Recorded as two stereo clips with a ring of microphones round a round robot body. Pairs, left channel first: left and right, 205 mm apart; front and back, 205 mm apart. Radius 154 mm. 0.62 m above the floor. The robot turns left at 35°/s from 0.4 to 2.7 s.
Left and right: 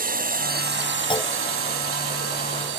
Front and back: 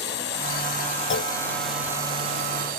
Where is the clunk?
25° left; by 1.3 s 15° left.